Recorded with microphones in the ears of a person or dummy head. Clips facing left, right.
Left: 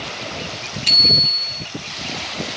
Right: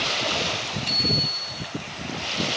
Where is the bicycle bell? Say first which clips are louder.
Left 2 dB; 70° left (ahead or behind), 2.5 m.